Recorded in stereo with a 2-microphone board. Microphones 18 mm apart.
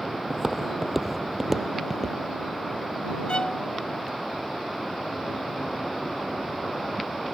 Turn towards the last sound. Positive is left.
turn(degrees=65)  # may be behind; listen again after turning